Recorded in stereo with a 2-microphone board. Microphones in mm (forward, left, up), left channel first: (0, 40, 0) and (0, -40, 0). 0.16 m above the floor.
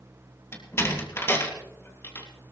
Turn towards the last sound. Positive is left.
turn(degrees=35)  # may be behind; listen again after turning